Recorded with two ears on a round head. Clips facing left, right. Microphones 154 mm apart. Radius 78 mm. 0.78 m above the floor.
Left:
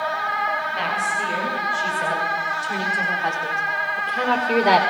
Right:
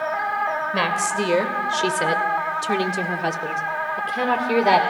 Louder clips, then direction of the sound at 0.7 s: Right 3 dB; 80° right.